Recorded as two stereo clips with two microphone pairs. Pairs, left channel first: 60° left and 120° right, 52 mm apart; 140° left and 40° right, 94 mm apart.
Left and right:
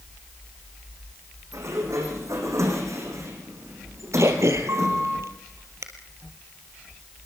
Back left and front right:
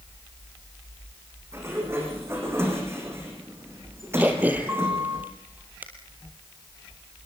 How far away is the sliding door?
About 6 m.